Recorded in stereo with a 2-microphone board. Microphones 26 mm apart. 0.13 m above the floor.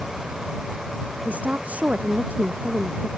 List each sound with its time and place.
1.2 s a woman speaking: 75° right (ahead or behind)